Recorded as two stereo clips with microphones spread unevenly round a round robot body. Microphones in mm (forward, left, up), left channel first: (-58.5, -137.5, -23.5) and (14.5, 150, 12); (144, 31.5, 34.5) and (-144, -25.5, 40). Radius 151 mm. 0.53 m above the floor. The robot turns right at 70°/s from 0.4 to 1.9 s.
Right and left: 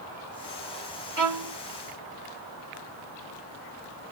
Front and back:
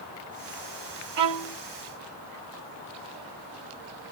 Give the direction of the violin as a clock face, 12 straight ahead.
8 o'clock.